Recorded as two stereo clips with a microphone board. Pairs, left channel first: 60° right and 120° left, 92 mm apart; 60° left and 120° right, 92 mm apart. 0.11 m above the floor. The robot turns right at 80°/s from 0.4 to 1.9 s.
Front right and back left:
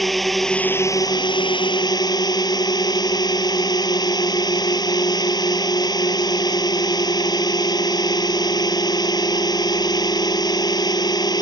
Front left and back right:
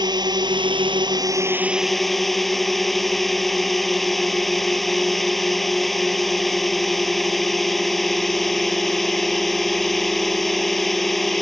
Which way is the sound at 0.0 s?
150° right.